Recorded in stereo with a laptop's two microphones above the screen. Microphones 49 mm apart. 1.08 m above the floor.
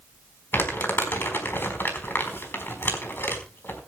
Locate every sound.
0.5 s crumpling: 45° left (ahead or behind), 4 m